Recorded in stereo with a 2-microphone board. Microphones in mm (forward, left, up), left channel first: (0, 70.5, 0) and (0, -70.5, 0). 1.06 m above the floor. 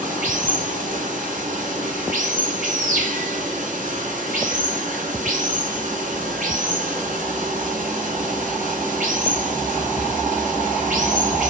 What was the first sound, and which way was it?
Running water, 70° right (ahead or behind).